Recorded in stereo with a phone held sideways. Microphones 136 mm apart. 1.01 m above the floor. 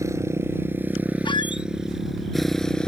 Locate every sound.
0.0 s a motorcycle: 20° right (ahead or behind); by 2.9 s 5° left (ahead or behind)
1.2 s a squeak: 35° left (ahead or behind)